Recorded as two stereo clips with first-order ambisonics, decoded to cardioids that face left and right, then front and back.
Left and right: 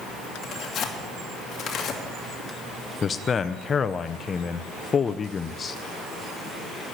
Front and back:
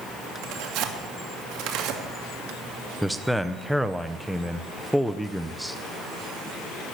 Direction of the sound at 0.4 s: 150° left.